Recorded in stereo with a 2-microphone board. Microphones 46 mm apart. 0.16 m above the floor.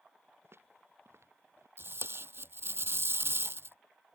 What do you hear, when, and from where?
0.4 s footsteps: 65° right (ahead or behind); by 1.7 s 70° right (ahead or behind)
1.8 s tape being pulled: 60° right (ahead or behind)